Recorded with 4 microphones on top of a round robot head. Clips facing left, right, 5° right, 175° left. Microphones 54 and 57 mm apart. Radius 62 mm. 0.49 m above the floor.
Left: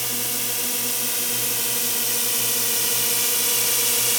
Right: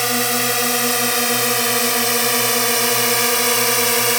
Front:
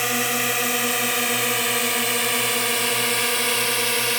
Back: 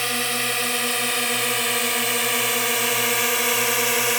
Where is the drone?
85° right; by 4.2 s 110° right.